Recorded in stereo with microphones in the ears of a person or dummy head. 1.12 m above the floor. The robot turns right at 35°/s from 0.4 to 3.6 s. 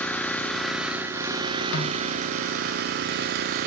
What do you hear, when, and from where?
0.0 s an engine running: 170° left, 0.8 m; by 3.7 s 80° right, 0.8 m
1.7 s a snare drum: 65° left (ahead or behind), 1.6 m